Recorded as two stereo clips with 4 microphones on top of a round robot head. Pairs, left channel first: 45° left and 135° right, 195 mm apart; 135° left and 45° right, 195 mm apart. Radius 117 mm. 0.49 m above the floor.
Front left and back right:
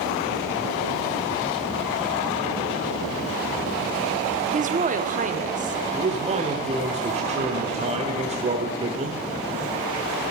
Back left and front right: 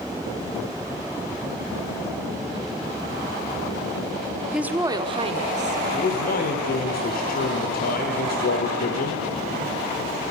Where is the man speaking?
170° left, 1.4 m.